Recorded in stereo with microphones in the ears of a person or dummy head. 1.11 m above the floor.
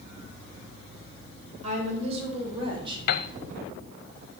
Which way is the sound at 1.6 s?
40° right (ahead or behind).